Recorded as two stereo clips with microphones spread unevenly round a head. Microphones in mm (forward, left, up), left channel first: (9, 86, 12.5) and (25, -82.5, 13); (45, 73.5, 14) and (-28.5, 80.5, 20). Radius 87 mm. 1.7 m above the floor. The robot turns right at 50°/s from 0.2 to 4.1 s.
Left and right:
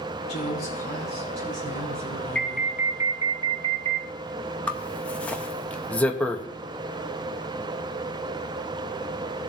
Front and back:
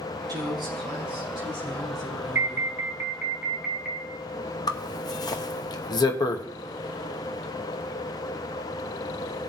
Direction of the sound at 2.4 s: 175° left.